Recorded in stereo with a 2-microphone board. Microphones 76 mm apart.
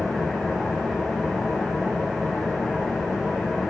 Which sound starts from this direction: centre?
An engine running, at 0.0 s.